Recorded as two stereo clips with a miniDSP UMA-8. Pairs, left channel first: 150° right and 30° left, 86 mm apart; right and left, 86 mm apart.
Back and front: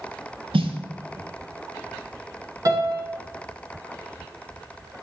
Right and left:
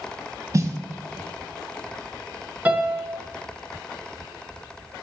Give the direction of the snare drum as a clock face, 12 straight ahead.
11 o'clock.